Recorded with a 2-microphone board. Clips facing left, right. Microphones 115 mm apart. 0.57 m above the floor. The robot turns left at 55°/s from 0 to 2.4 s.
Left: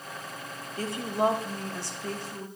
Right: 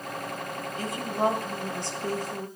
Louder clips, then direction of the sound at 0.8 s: Left 1 dB; 40° left.